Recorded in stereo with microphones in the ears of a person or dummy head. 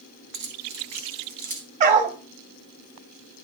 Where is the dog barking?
40° right (ahead or behind), 1.2 m.